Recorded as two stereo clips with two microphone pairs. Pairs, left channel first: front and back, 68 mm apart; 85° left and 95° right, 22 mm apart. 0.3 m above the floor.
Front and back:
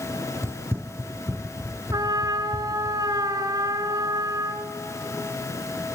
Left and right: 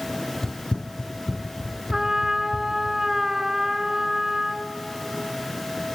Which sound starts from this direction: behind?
A trumpet, at 1.9 s.